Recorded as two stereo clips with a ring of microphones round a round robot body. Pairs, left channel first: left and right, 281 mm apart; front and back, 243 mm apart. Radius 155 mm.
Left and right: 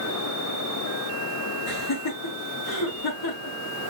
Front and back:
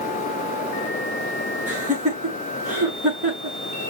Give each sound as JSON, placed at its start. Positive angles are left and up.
{"t": 1.7, "sound": "laughter", "azimuth_deg": 120, "distance_m": 5.5}